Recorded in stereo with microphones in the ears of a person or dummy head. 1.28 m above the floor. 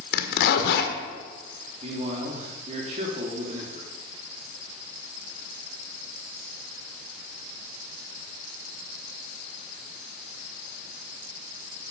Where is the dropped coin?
I don't hear a dropped coin.